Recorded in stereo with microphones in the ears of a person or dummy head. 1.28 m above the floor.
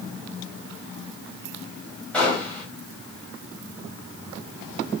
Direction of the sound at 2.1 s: 5° left (ahead or behind).